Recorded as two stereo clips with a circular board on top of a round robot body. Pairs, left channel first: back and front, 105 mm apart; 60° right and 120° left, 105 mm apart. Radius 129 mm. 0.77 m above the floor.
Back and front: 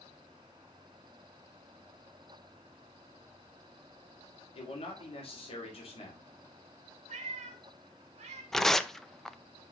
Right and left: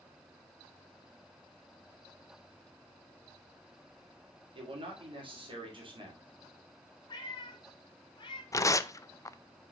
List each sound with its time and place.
4.5 s a man speaking: 160° left, 2.5 m
7.1 s a cat meowing: 10° right, 1.4 m
8.5 s tearing paper: 95° right, 0.7 m